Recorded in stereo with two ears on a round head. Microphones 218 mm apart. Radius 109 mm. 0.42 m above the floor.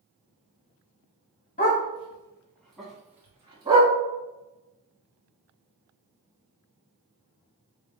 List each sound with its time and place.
1.6 s a dog barking: 35° left (ahead or behind), 1.2 m; by 3.9 s 20° right (ahead or behind), 1.9 m